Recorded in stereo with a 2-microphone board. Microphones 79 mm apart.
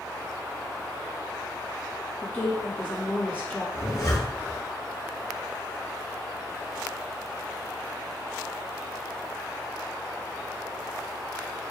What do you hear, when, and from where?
2.2 s a woman speaking: 25° left (ahead or behind), 1.3 m
3.8 s a zipper: 55° left (ahead or behind), 1.5 m